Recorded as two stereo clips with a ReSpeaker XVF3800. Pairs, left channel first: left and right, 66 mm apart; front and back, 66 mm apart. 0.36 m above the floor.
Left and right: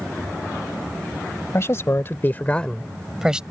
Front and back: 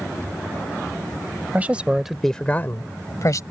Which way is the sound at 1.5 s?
120° left.